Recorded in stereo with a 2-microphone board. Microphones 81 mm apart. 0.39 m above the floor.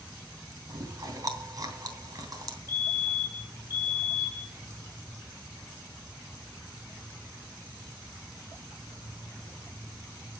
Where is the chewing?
50° right (ahead or behind), 3 m.